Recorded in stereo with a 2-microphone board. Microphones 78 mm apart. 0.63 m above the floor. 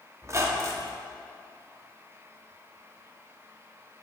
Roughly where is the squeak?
Right.